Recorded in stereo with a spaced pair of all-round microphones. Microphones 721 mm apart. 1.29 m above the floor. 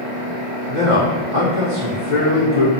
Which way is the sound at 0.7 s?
80° right.